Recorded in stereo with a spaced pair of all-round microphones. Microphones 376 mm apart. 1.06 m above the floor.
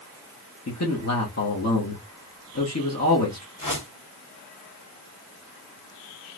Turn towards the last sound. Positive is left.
turn(degrees=55)  # may be behind; listen again after turning